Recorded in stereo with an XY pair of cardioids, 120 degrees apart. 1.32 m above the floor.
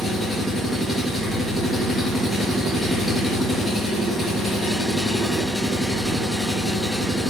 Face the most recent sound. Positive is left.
turn(degrees=10)